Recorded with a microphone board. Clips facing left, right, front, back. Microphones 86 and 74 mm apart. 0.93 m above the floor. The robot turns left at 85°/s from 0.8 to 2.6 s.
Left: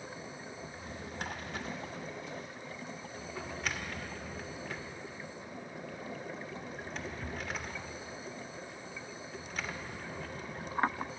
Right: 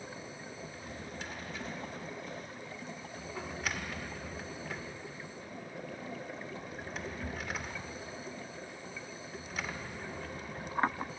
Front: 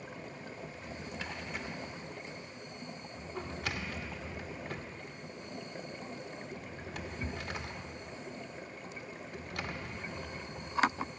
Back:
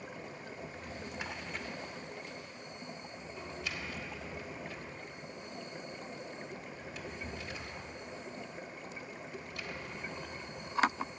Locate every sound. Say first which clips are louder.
0.6 s a drawer: even, even; 150° left, 0.8 m; by 11.1 s 5° right, 0.8 m